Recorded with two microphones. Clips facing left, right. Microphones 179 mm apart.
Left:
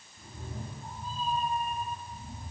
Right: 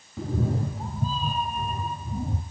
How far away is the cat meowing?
About 1.9 m.